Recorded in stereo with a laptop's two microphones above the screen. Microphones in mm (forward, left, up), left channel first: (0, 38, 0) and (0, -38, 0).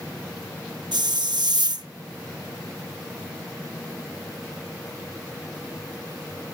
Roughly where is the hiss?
Right.